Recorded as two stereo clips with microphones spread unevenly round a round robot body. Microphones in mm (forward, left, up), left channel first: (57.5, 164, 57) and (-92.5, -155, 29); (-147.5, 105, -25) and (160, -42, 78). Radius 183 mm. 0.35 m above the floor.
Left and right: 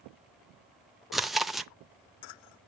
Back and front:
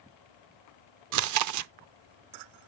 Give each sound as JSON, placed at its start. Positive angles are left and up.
{"t": 1.1, "sound": "chewing", "azimuth_deg": -35, "distance_m": 0.6}